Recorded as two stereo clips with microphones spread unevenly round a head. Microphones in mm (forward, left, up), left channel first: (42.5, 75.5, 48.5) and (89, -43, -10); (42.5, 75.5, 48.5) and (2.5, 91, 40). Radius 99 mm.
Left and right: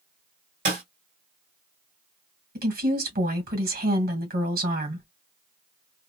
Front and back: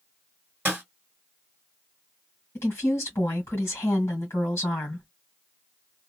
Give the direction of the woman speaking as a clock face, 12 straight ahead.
2 o'clock.